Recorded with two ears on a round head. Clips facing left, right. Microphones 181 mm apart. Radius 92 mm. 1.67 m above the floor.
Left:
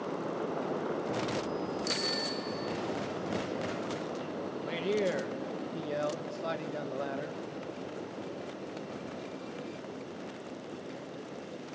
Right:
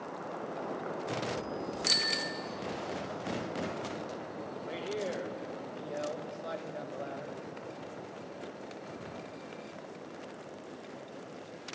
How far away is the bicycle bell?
About 2 m.